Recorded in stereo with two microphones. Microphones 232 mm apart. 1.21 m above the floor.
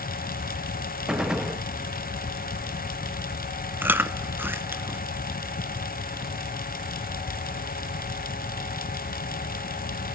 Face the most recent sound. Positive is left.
turn(degrees=-10)  # may be behind; listen again after turning